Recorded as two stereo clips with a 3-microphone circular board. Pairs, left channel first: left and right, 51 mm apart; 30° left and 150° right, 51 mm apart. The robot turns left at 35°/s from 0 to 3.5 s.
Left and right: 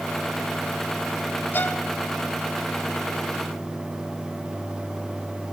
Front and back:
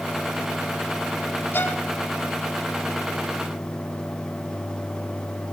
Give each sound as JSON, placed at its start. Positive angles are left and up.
{"t": 1.5, "sound": "a violin", "azimuth_deg": 60, "distance_m": 1.0}